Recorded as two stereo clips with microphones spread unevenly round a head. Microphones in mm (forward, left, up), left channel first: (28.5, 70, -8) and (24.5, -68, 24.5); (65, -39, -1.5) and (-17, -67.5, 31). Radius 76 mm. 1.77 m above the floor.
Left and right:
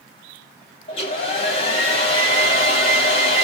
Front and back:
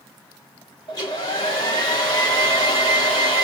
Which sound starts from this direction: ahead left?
A hair dryer, at 0.9 s.